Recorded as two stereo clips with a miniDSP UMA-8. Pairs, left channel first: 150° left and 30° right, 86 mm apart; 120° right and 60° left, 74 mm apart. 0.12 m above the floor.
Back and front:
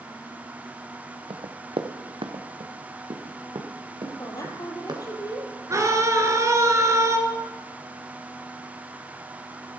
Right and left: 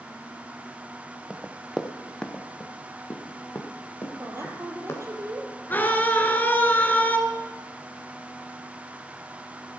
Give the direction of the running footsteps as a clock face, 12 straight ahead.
1 o'clock.